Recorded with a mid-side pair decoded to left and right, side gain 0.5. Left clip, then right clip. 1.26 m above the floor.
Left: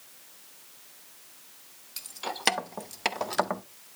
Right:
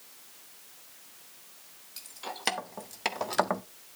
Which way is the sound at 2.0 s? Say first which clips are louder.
Left 5 dB; 35° left.